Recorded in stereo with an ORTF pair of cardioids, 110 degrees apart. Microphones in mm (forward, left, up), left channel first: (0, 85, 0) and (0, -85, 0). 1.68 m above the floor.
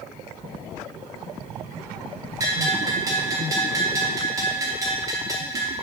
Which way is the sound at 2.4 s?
20° right.